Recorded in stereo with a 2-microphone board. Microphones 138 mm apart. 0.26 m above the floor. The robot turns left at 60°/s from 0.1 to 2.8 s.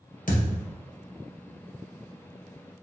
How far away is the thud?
About 1.7 m.